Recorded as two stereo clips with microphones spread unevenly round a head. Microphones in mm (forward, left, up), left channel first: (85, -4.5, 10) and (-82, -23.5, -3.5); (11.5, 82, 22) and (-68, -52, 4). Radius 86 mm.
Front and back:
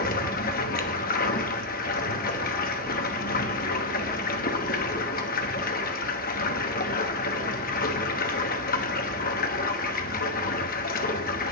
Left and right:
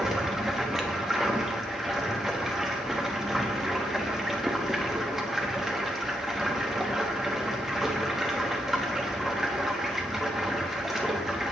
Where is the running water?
30° right, 1.2 m.